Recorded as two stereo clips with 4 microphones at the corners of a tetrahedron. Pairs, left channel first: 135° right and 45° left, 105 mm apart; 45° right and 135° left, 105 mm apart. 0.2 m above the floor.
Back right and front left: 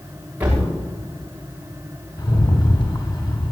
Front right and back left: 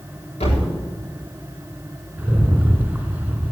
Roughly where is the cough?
No cough in this recording.